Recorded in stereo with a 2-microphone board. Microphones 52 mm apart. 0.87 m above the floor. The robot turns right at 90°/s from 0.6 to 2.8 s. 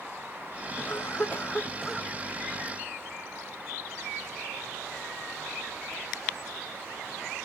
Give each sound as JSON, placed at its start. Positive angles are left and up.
{"t": 0.8, "sound": "a cough", "azimuth_deg": 75, "distance_m": 1.0}